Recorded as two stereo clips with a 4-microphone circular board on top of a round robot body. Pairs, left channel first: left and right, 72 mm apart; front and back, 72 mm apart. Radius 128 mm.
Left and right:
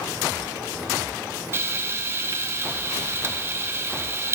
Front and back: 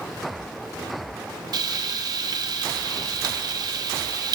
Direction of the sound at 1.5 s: 150° right.